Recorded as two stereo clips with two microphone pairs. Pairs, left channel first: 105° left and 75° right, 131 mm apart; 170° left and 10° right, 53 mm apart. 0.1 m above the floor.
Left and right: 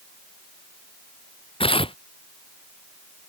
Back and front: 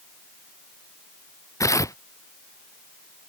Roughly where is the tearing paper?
Behind left.